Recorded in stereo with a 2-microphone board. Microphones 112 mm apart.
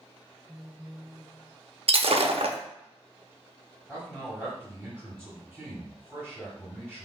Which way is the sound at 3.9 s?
5° left (ahead or behind).